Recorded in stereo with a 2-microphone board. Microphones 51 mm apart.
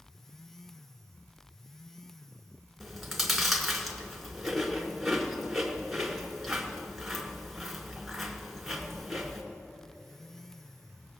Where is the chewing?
Centre (ahead or behind), 1.6 m.